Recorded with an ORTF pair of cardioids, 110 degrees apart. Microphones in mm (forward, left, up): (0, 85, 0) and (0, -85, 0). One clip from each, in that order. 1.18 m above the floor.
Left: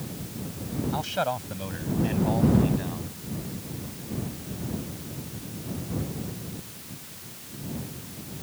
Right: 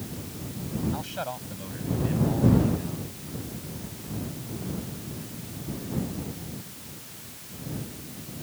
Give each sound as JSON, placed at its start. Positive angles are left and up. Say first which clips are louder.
{"t": 0.9, "sound": "a man speaking", "louder": "left 6 dB", "azimuth_deg": 35}